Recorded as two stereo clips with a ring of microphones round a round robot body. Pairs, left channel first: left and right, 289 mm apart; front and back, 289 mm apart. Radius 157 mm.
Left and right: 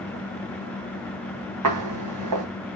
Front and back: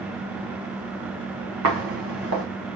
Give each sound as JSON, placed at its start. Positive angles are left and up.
{"t": 1.6, "sound": "footsteps", "azimuth_deg": -130, "distance_m": 1.3}